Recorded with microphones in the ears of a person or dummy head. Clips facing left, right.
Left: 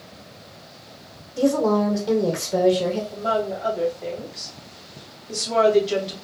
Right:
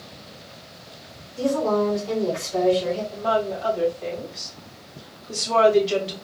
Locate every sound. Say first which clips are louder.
1.4 s a woman speaking: left 2 dB; 85° left, 1.2 m
3.1 s a woman speaking: right 1 dB; 5° left (ahead or behind), 2.5 m